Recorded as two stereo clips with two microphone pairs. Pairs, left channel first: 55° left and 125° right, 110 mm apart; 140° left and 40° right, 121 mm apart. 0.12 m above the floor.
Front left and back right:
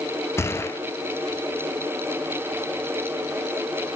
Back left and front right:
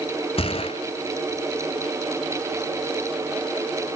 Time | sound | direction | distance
0.4 | a gunshot | 115° left | 1.2 m